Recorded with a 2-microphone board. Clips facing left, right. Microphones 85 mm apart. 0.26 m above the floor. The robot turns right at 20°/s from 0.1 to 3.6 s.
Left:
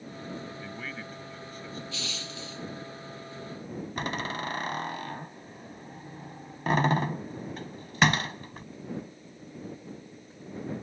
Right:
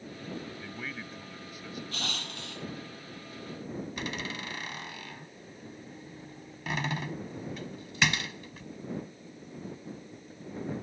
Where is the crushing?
50° right (ahead or behind); by 2.6 s 65° right (ahead or behind).